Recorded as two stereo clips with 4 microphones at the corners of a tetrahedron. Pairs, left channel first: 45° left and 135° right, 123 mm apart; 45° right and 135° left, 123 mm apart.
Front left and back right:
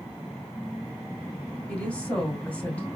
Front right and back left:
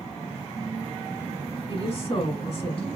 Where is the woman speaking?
30° right, 1.7 m.